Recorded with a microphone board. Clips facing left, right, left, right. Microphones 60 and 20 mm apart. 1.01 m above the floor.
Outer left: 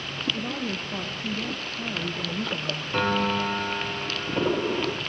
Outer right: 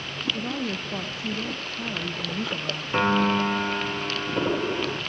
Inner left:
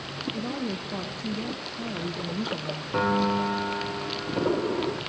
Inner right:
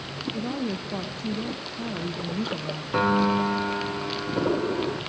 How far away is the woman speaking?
About 0.7 m.